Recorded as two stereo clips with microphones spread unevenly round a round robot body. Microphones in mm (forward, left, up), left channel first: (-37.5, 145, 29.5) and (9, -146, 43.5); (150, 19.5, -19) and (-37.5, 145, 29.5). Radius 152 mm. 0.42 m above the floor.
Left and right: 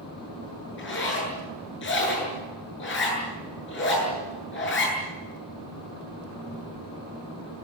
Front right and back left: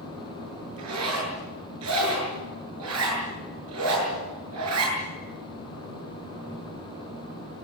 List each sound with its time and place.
0.8 s a zipper: 150° left, 8.5 m